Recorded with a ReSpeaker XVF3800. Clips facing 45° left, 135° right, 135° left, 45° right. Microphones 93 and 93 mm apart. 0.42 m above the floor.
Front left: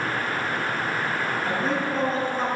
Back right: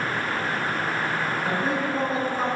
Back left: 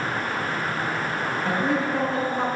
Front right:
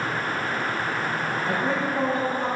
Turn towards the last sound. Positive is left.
turn(degrees=140)